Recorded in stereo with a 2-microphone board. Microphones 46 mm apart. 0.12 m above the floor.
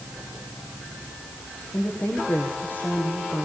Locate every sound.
1.7 s a woman speaking: 45° left (ahead or behind), 7 m; by 3.5 s 40° left (ahead or behind), 6 m